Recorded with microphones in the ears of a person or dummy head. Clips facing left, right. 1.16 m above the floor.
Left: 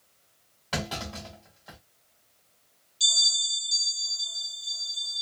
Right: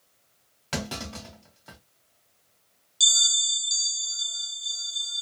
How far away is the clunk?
About 2.5 m.